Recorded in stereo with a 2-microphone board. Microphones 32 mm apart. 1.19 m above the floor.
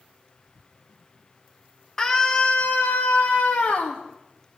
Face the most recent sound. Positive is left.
turn(degrees=40)  # may be behind; listen again after turning